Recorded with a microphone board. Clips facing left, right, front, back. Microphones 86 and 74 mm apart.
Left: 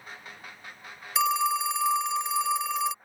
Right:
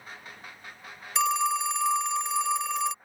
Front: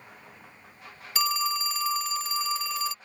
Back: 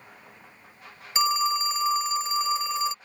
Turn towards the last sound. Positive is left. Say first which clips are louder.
# even, back 4 dB
turn(degrees=175)